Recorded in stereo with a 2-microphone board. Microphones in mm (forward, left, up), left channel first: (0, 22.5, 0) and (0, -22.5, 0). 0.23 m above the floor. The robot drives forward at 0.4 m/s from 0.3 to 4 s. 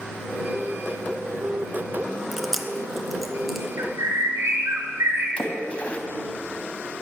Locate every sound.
2.3 s chewing: 5° right (ahead or behind), 0.6 m
3.8 s a bird: 75° right (ahead or behind), 1.2 m; by 5.3 s 70° right (ahead or behind), 1.2 m
5.4 s a splash: 30° left (ahead or behind), 1.0 m